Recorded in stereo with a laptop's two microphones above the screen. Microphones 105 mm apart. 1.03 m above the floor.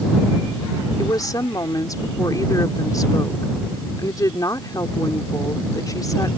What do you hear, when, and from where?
1.0 s a woman speaking: 35° left (ahead or behind)